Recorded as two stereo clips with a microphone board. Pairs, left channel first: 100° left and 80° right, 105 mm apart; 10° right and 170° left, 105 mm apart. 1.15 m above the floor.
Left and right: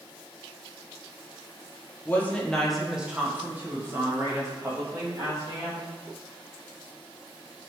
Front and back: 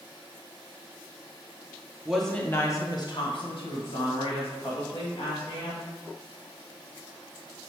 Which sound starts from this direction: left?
A woman speaking, at 2.0 s.